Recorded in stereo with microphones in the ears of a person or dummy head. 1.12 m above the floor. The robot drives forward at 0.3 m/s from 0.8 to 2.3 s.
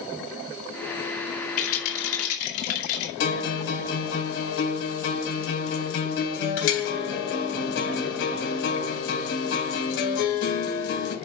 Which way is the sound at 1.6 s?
70° left (ahead or behind).